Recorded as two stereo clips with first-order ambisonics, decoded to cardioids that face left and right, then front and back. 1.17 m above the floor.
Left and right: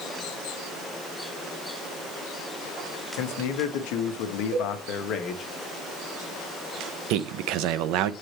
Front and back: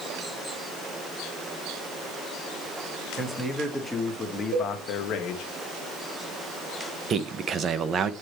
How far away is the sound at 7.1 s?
About 0.6 m.